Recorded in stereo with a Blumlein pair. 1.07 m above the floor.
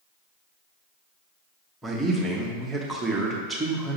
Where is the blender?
No blender in this recording.